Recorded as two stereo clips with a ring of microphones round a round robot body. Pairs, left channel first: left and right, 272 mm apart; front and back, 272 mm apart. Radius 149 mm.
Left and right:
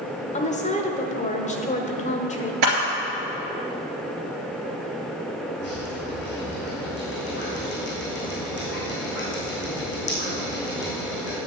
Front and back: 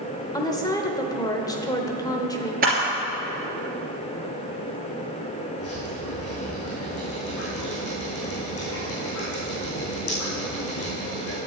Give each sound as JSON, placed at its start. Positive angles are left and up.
{"t": 0.3, "sound": "a woman speaking", "azimuth_deg": 60, "distance_m": 1.1}
{"t": 2.6, "sound": "a camera shutter", "azimuth_deg": -115, "distance_m": 2.5}
{"t": 5.6, "sound": "dripping", "azimuth_deg": 40, "distance_m": 4.5}